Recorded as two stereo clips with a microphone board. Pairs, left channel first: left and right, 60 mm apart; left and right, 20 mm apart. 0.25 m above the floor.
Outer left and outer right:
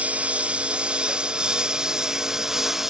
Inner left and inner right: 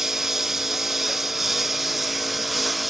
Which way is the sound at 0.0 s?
20° right (ahead or behind).